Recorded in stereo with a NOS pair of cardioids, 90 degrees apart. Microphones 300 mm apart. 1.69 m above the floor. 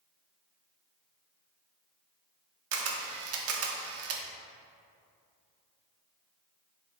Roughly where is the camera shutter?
Ahead right.